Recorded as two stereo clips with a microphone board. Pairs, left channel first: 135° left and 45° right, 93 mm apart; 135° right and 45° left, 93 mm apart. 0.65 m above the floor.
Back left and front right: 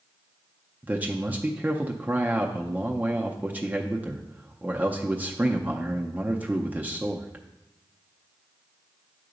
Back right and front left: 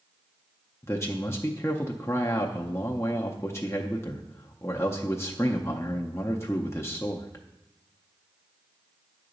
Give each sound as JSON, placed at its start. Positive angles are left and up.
{"t": 0.8, "sound": "a man speaking", "azimuth_deg": -105, "distance_m": 0.5}